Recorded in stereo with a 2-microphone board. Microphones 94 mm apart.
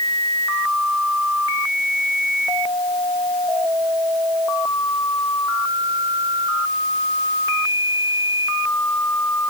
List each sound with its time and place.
Only background noise.